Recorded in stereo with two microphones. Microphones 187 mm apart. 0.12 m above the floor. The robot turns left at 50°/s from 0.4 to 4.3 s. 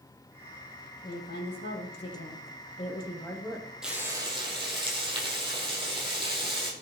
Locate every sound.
1.0 s a woman speaking: 130° left, 4.5 m; by 3.7 s 5° right, 4.5 m
3.8 s frying: 5° right (ahead or behind), 4 m; by 6.7 s 25° right (ahead or behind), 4 m